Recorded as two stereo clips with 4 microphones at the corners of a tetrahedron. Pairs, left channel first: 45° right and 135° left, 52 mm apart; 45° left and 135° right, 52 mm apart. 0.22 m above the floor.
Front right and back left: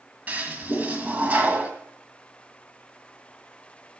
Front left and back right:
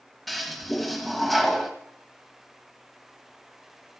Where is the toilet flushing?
130° left, 1.7 m.